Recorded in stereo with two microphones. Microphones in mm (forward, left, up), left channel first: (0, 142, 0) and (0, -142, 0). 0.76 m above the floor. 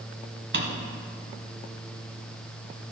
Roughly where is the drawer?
Right.